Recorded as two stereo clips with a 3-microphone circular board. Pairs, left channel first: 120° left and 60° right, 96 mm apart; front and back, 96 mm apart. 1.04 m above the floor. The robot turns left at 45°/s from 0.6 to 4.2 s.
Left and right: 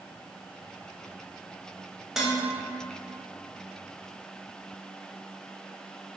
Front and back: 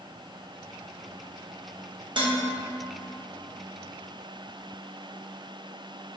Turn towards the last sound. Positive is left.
turn(degrees=120)